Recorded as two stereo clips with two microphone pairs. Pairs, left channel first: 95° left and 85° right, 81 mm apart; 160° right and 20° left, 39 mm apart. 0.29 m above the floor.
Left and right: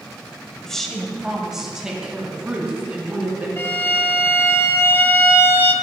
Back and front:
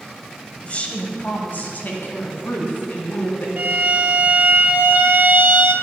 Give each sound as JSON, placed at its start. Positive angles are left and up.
{"t": 0.6, "sound": "a woman speaking", "azimuth_deg": 175, "distance_m": 1.2}
{"t": 3.6, "sound": "a violin", "azimuth_deg": 40, "distance_m": 0.7}